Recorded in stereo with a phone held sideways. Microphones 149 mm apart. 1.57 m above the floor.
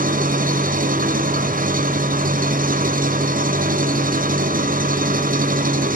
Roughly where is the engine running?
Right.